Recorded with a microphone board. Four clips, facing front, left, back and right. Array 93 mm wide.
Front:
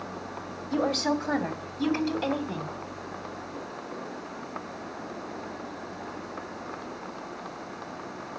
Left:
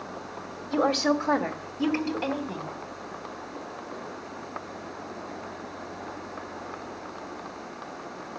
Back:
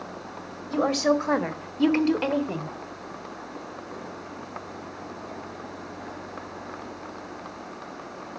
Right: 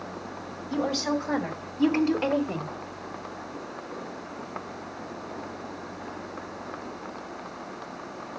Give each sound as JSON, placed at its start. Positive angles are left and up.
{"t": 0.7, "sound": "a woman speaking", "azimuth_deg": 130, "distance_m": 2.5}